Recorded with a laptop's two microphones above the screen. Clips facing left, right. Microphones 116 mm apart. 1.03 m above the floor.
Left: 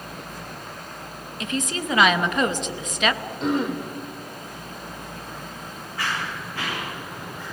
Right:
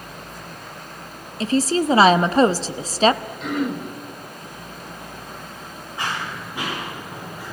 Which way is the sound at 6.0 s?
20° right (ahead or behind).